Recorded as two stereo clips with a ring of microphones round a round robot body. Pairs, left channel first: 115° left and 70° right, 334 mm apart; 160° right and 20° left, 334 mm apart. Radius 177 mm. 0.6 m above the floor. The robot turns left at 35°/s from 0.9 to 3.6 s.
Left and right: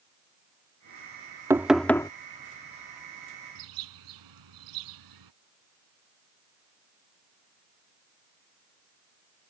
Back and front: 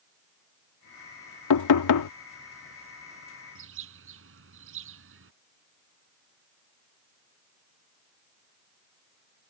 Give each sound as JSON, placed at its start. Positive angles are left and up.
{"t": 1.5, "sound": "knocking", "azimuth_deg": -150}
{"t": 3.5, "sound": "a bird", "azimuth_deg": -30}